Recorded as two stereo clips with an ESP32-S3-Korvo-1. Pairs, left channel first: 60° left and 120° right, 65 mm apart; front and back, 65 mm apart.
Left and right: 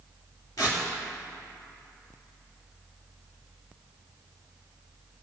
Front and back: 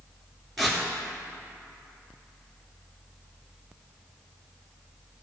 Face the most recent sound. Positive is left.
turn(degrees=85)